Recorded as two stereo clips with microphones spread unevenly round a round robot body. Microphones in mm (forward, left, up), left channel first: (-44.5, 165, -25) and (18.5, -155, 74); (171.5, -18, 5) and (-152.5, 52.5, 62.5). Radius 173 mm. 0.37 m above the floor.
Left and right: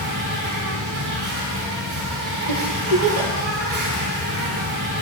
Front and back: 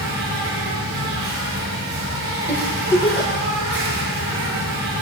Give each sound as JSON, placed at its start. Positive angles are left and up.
{"t": 0.0, "sound": "an insect", "azimuth_deg": -135, "distance_m": 5.0}
{"t": 2.5, "sound": "a giggle", "azimuth_deg": -105, "distance_m": 1.7}